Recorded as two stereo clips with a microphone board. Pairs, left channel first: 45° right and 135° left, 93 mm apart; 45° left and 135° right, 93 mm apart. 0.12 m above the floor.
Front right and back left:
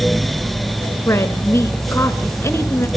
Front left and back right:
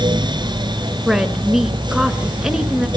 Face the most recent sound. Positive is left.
turn(degrees=-55)